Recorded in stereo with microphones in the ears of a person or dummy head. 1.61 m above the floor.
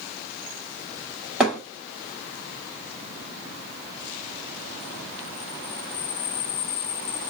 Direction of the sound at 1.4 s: 10° right (ahead or behind).